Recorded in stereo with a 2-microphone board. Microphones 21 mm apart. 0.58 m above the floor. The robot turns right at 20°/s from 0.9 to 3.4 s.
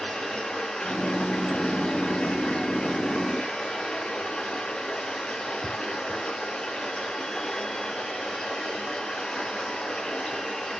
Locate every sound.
0.0 s running water: 55° left, 4 m; by 10.8 s 105° left, 4 m